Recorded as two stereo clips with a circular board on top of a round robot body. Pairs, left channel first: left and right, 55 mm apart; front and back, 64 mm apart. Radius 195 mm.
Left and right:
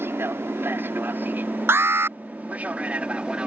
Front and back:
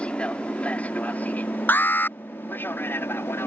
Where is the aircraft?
65° right; by 3.5 s 30° right.